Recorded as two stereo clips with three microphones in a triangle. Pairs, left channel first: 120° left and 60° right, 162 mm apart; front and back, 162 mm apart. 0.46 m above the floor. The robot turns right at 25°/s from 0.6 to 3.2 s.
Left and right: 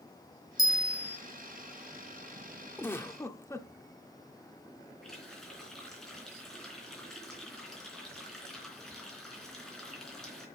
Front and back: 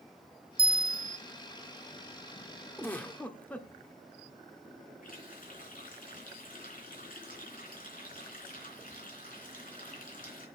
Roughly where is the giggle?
Ahead left.